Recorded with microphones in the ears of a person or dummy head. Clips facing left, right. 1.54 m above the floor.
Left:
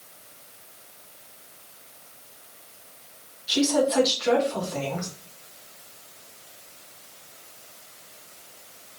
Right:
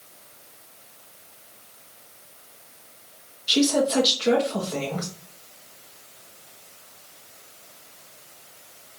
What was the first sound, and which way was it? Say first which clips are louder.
A woman speaking: right 1 dB; 45° right (ahead or behind).